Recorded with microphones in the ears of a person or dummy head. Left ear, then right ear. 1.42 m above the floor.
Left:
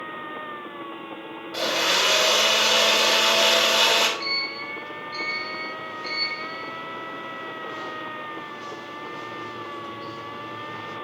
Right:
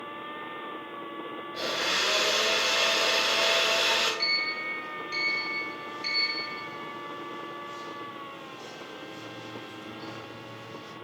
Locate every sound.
1.5 s a blender: 75° left (ahead or behind), 3.5 m
4.2 s a sliding door: 65° right (ahead or behind), 3.5 m